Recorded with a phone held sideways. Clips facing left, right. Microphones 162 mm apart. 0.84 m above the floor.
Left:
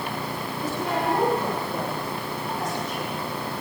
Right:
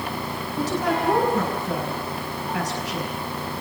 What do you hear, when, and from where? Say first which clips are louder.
0.6 s a woman speaking: right 4 dB; 85° right, 7 m